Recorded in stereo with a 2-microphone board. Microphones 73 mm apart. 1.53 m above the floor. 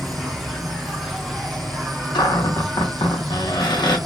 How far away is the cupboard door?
About 0.9 m.